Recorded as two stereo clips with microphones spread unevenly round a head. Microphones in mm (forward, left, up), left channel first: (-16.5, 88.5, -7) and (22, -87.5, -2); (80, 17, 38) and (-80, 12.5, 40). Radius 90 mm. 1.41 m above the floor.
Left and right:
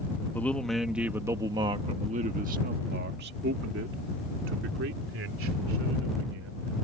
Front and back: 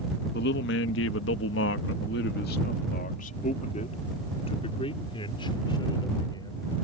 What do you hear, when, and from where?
0.3 s a man speaking: 20° left; by 6.8 s 70° right